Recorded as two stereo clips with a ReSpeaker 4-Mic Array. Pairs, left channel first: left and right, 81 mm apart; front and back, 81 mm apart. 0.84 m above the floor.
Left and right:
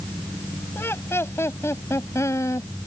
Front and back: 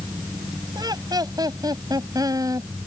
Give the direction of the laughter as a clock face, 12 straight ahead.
7 o'clock.